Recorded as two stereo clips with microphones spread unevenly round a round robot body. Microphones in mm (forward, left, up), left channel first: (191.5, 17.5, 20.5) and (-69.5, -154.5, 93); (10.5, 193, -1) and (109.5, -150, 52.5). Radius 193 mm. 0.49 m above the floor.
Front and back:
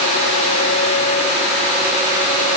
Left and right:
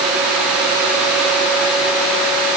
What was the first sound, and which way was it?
Only background noise.